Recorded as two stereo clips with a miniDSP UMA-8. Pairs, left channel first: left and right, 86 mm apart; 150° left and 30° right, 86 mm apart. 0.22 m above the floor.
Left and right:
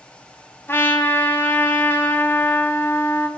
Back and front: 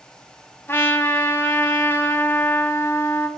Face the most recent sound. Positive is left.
turn(degrees=120)